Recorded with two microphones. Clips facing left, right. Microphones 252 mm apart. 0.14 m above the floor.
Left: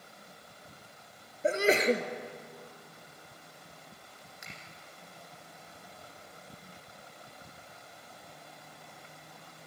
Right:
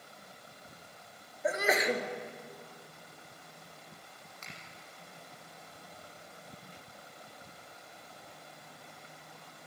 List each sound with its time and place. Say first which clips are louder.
1.4 s a sneeze: left 5 dB; 30° left (ahead or behind), 2.5 m
4.4 s a finger snap: left 1 dB; 10° left (ahead or behind), 6 m